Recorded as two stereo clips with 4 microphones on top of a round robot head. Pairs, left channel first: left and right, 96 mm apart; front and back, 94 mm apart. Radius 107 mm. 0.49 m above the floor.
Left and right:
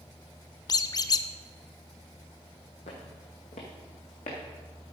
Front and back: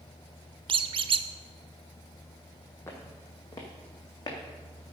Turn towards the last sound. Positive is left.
turn(degrees=50)